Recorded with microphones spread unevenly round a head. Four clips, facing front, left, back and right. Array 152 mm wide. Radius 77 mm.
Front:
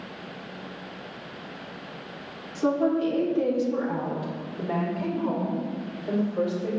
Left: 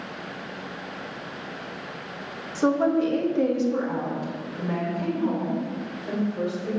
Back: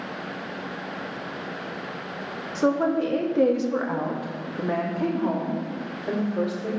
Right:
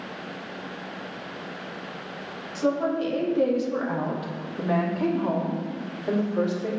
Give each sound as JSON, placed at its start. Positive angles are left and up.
{"t": 2.5, "sound": "a woman speaking", "azimuth_deg": 145, "distance_m": 1.5}